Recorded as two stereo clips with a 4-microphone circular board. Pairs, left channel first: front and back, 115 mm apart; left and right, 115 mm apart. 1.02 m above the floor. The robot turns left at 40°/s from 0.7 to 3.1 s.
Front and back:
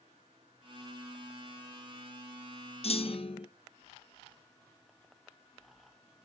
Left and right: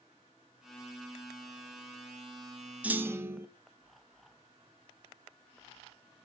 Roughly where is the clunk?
Ahead.